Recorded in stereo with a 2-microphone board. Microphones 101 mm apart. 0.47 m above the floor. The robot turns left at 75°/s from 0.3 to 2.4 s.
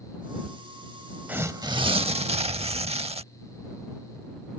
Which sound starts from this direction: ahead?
Tearing paper, at 1.3 s.